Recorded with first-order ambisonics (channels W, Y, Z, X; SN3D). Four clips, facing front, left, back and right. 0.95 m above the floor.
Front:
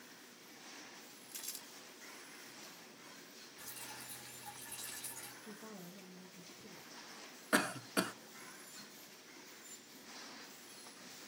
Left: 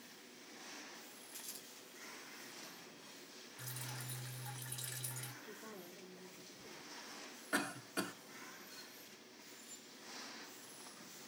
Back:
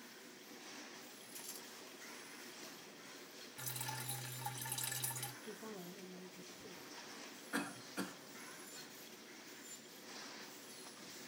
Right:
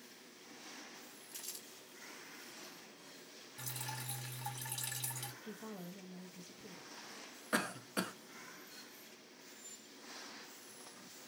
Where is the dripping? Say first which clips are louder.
Right 4 dB, back 5 dB; 130° right, 1.9 m.